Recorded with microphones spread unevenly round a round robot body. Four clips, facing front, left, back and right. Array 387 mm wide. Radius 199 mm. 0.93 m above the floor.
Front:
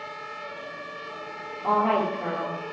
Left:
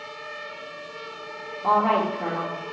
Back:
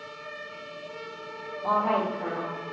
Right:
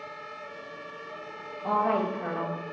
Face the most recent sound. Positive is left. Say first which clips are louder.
# left 5 dB, front 2 dB
turn(degrees=70)